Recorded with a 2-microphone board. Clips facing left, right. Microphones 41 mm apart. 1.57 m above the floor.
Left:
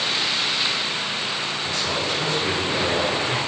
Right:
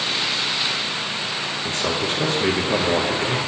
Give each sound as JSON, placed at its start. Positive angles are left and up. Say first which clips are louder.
{"t": 1.6, "sound": "a man speaking", "louder": "right 3 dB", "side_deg": -45, "distance_m": 0.6}